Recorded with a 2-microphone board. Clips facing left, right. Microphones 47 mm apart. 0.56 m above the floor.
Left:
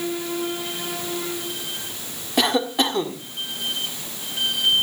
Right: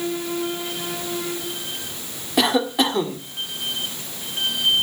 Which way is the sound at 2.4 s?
Centre (ahead or behind).